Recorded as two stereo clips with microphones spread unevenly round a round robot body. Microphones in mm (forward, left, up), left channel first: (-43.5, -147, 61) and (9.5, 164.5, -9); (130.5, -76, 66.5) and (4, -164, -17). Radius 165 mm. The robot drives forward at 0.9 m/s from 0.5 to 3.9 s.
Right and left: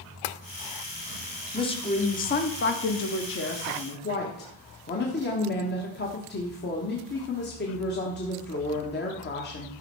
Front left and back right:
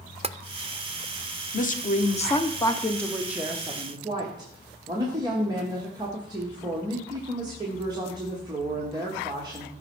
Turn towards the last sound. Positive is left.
turn(degrees=-160)